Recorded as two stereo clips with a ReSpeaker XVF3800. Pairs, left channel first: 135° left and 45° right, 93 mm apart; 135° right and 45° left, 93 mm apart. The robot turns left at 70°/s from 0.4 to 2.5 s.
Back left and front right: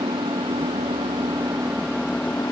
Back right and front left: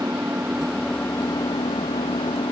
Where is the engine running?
20° right; by 2.5 s 165° right.